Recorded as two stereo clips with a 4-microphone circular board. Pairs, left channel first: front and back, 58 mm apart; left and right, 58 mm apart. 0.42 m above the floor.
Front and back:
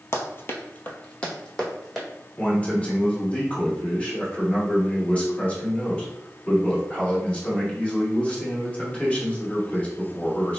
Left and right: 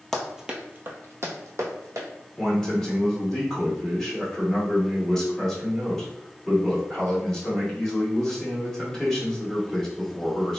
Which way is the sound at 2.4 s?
25° left.